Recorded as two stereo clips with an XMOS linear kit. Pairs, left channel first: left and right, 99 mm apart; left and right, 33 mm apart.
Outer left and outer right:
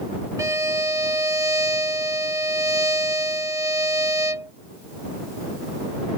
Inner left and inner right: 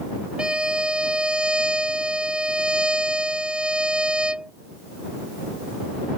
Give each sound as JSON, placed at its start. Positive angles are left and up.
{"t": 0.4, "sound": "a violin", "side_deg": -30}